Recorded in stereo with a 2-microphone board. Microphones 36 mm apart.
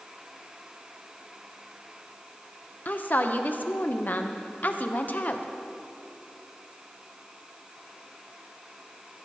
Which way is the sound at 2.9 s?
50° left (ahead or behind).